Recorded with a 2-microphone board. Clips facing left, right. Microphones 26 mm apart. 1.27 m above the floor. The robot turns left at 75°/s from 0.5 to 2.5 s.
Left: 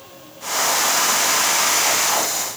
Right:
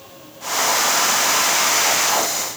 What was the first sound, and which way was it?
Only background noise.